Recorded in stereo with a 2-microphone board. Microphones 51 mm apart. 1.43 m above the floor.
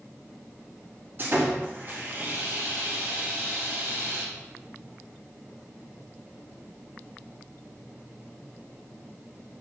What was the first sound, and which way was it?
Sawing, 35° right (ahead or behind).